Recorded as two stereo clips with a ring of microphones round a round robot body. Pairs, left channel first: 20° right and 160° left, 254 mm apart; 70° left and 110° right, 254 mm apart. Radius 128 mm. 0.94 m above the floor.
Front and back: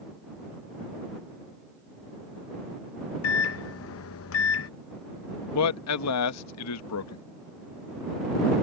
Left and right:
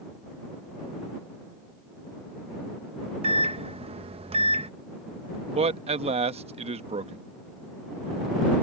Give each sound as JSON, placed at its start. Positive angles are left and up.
{"t": 3.2, "sound": "a microwave", "azimuth_deg": -45}
{"t": 5.5, "sound": "a man speaking", "azimuth_deg": -45}